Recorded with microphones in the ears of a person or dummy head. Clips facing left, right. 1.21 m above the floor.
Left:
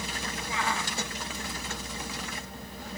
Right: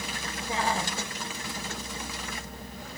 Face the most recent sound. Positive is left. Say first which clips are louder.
# right 4 dB
turn(degrees=-30)  # may be behind; listen again after turning